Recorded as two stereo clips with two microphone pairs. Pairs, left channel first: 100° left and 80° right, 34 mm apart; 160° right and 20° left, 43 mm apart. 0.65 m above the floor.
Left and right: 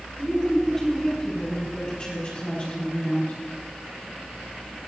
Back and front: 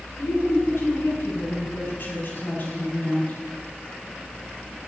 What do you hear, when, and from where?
0.2 s a woman speaking: 175° left, 5.5 m; by 3.3 s 145° left, 4.5 m